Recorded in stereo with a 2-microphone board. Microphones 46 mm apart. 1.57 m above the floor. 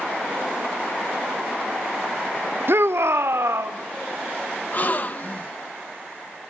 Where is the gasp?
40° left (ahead or behind), 0.9 m.